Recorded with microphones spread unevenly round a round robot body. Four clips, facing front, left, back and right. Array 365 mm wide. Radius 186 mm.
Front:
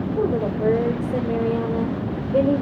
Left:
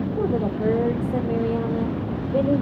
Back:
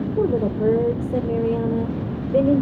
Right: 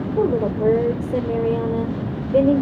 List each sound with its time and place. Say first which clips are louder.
0.2 s a woman speaking: right 6 dB, back 2 dB; 130° right, 1.3 m